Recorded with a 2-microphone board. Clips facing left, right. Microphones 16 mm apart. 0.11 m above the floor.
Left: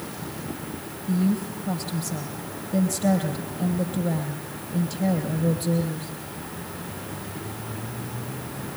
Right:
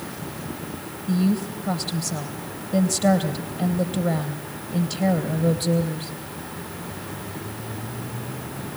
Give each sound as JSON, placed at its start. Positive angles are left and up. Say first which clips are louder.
{"t": 1.1, "sound": "a woman speaking", "louder": "right 2 dB", "side_deg": -25, "distance_m": 3.0}